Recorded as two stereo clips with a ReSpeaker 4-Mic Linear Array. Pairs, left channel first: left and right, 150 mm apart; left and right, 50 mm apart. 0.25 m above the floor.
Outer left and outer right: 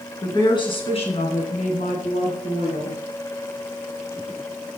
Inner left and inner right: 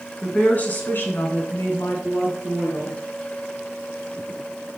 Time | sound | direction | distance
0.2 | a woman speaking | 25° left (ahead or behind) | 3 m